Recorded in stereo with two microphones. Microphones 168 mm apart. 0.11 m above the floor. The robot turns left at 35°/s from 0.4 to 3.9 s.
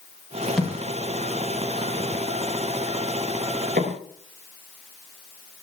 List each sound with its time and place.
0.6 s a thud: centre (ahead or behind), 8.5 m; by 4.0 s 65° right (ahead or behind), 8.5 m